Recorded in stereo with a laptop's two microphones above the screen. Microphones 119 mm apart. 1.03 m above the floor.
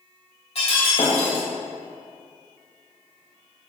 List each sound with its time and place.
0.6 s breaking glass: 55° left (ahead or behind), 1.6 m